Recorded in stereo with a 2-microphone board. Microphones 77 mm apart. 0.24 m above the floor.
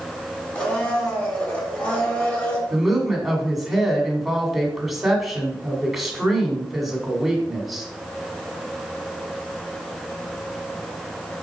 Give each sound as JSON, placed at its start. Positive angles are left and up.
{"t": 0.6, "sound": "a blender", "side_deg": 20, "distance_m": 2.5}
{"t": 2.7, "sound": "a woman speaking", "side_deg": -5, "distance_m": 1.8}